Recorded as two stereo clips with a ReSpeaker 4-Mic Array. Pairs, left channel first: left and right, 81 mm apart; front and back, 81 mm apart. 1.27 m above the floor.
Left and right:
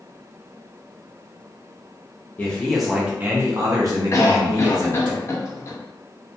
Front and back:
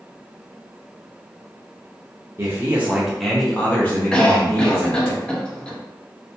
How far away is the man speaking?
About 0.7 m.